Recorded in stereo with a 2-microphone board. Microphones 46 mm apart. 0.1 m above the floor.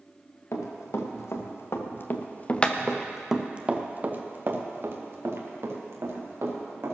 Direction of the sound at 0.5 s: 70° left (ahead or behind).